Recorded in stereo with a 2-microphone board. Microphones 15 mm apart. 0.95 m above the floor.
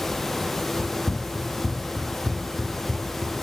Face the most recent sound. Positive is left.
turn(degrees=-5)  # may be behind; listen again after turning